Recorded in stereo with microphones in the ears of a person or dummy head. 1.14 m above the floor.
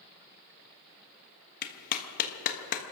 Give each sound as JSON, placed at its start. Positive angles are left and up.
{"t": 1.6, "sound": "a clap", "side_deg": 45, "distance_m": 1.4}